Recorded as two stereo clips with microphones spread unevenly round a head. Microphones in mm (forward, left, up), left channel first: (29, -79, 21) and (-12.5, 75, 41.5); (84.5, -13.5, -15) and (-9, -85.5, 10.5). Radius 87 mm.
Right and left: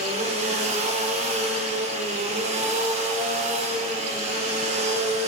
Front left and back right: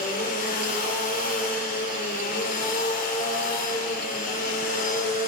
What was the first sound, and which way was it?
A machine running, 55° left.